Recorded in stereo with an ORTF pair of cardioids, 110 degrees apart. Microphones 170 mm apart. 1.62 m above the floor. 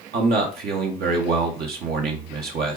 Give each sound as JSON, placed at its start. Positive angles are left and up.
{"t": 0.1, "sound": "a man speaking", "azimuth_deg": -65, "distance_m": 1.6}